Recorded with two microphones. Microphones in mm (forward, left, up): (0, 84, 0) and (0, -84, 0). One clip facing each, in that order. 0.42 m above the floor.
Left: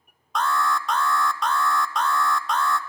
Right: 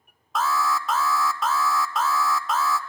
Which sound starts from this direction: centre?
An alarm, at 0.3 s.